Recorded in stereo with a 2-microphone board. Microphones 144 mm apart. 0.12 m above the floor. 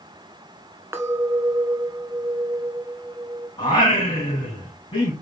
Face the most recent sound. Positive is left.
turn(degrees=40)  # may be behind; listen again after turning